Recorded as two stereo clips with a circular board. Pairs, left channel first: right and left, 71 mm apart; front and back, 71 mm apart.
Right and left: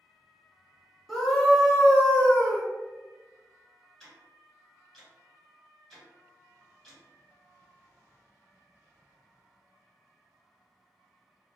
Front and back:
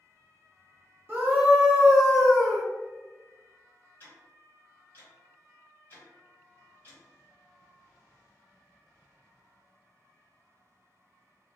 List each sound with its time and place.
1.1 s a scream: straight behind, 1.1 m; by 2.6 s 90° right, 1.1 m
4.0 s ticking: 10° right, 1.9 m